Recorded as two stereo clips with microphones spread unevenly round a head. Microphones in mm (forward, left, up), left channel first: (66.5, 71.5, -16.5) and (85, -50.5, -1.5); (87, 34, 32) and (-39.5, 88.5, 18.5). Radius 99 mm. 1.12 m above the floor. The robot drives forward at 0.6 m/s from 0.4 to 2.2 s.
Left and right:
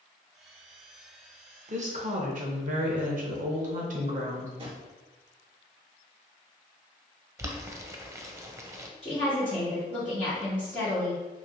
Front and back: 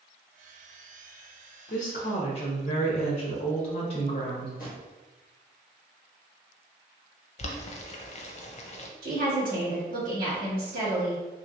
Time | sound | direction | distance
1.7 | a woman speaking | 50° right | 0.9 m
4.6 | a drawer | 50° right | 1.3 m
7.4 | boiling | 15° right | 0.5 m
9.0 | a woman speaking | 170° right | 1.6 m